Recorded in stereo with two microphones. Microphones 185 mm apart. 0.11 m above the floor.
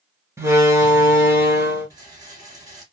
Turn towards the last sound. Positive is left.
turn(degrees=-20)  # may be behind; listen again after turning